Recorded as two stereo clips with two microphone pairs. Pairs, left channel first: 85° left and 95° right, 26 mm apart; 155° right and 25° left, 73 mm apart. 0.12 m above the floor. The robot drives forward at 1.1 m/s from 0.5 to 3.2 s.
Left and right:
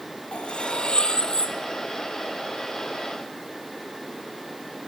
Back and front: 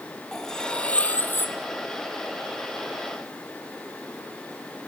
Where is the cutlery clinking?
120° left, 1.9 m; by 1.6 s 145° left, 2.5 m.